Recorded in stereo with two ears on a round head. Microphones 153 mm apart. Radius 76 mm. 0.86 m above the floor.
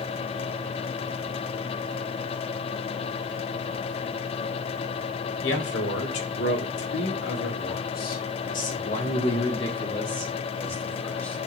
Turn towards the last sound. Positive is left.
turn(degrees=10)  # may be behind; listen again after turning